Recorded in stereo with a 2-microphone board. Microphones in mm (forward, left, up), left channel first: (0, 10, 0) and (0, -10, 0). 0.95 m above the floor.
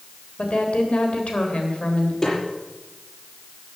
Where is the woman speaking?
75° left (ahead or behind), 3 m.